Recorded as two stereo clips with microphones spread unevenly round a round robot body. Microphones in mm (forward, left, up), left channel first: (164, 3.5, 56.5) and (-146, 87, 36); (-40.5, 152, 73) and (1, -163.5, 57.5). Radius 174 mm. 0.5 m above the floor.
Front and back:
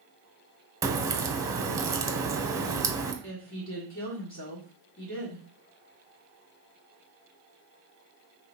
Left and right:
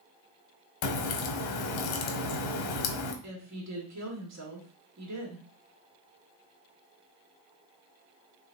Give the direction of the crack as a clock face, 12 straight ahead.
9 o'clock.